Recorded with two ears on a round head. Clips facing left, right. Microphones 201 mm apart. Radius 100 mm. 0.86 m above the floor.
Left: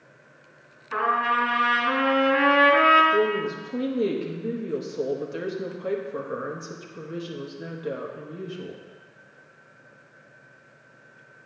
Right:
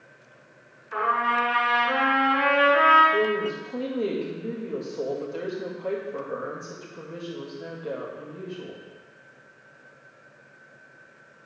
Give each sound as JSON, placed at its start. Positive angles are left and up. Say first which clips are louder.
{"t": 0.9, "sound": "a trumpet", "louder": "left 1 dB", "side_deg": 65, "distance_m": 3.5}
{"t": 3.1, "sound": "a woman speaking", "louder": "left 1 dB", "side_deg": 20, "distance_m": 1.3}